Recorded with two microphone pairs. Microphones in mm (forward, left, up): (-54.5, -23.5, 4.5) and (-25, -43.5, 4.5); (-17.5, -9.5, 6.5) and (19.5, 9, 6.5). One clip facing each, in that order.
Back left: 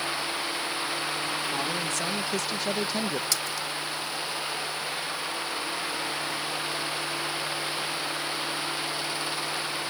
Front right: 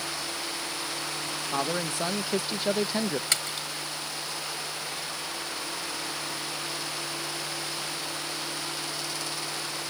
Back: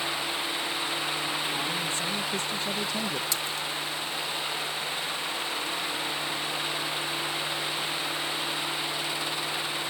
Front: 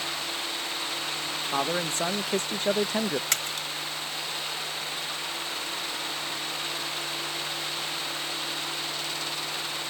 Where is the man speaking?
20° left; by 3.2 s 45° left.